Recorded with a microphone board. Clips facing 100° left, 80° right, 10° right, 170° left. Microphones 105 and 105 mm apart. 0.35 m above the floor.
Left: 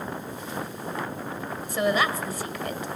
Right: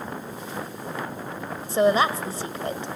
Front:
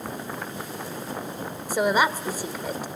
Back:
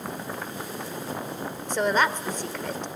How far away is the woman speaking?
About 1.2 m.